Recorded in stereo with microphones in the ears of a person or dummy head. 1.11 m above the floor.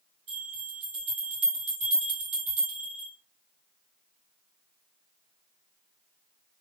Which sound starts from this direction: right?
A bell, at 0.3 s.